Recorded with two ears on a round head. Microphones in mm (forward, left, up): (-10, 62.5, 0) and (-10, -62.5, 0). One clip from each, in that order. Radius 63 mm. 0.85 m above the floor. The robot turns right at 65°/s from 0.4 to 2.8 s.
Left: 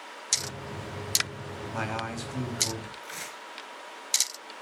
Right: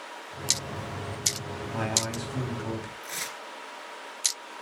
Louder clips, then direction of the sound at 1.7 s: Right 3 dB; 120° left.